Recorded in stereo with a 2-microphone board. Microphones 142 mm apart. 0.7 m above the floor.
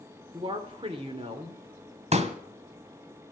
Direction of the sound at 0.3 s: 40° right (ahead or behind).